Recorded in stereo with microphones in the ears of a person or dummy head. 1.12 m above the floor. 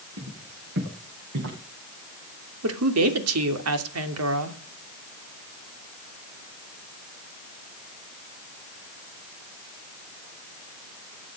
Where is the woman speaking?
85° right, 3 m.